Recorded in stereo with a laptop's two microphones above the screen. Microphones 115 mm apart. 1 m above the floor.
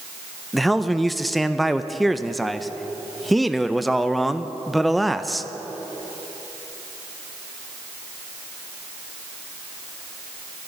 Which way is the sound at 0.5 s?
Centre (ahead or behind).